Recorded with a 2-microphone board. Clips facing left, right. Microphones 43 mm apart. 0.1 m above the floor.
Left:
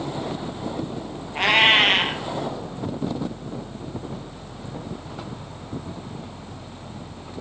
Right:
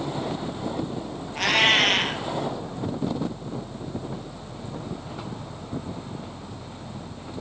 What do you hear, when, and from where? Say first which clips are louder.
1.4 s a cat meowing: left 3 dB; 25° left (ahead or behind), 0.9 m